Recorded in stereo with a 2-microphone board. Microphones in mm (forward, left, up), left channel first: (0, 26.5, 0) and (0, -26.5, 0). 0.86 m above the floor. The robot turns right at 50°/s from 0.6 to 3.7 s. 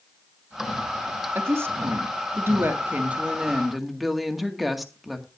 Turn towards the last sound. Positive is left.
turn(degrees=0)